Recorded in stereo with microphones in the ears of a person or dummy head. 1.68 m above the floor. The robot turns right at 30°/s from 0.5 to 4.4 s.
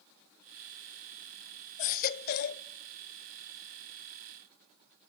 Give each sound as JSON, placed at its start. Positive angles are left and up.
{"t": 1.8, "sound": "a baby crying", "side_deg": 40, "distance_m": 0.7}